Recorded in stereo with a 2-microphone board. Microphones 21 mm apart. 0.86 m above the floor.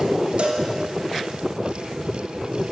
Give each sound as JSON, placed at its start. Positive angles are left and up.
{"t": 0.4, "sound": "a cowbell", "side_deg": -60, "distance_m": 2.5}